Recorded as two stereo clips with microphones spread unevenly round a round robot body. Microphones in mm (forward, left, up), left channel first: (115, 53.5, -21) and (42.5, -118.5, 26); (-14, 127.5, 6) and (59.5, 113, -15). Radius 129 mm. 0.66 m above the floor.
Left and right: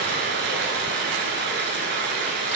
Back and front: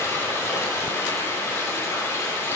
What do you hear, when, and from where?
0.0 s running water: 135° right, 1.2 m